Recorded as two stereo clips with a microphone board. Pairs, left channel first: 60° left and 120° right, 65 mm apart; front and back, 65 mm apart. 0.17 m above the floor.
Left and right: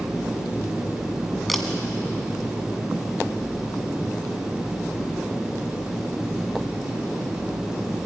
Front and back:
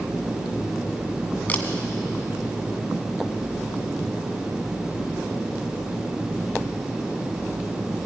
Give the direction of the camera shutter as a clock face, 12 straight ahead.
1 o'clock.